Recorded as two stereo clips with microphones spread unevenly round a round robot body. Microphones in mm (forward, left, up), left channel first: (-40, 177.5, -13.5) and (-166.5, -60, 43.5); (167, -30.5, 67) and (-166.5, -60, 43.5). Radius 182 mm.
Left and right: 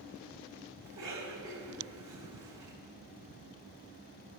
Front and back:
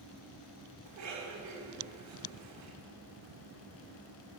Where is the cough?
140° right, 5 m.